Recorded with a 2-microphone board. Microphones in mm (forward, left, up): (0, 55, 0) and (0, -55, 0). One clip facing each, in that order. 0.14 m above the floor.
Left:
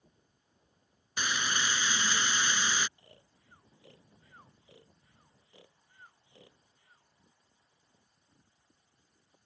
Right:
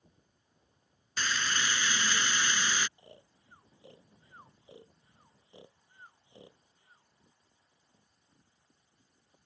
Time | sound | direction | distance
1.2 | frying | 15° left (ahead or behind) | ?
3.0 | snoring | 25° right (ahead or behind) | ?